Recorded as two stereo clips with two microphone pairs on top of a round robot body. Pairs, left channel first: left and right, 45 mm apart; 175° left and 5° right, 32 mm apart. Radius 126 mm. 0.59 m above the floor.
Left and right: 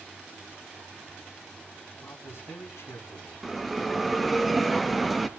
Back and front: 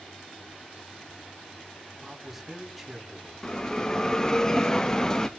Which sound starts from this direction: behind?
A bell, at 3.4 s.